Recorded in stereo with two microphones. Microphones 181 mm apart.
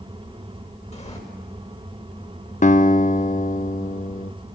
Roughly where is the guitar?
Left.